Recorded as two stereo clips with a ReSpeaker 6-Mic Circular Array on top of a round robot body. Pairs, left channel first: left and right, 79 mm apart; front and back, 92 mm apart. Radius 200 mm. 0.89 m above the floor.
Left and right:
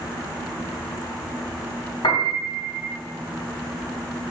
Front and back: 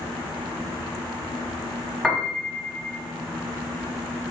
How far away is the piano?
About 1.4 m.